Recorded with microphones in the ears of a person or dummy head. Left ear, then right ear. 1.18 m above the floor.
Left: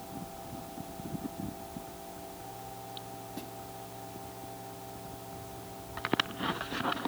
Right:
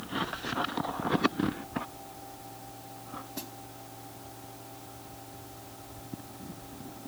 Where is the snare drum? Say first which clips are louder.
Right 1 dB; 15° right (ahead or behind).